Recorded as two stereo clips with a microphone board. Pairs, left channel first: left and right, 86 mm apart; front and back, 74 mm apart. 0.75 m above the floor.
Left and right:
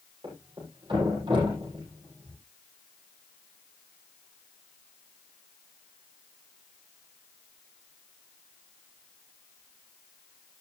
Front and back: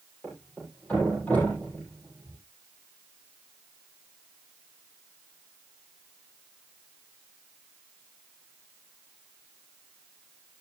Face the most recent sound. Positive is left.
turn(degrees=-75)